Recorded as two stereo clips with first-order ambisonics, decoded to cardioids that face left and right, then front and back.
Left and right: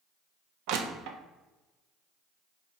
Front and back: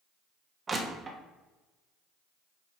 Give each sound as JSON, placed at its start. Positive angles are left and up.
{"t": 0.7, "sound": "crushing", "azimuth_deg": -105, "distance_m": 0.9}